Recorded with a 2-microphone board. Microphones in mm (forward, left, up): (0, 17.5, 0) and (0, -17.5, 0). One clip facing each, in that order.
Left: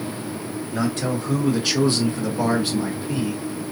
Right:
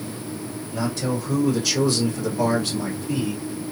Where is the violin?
I don't hear a violin.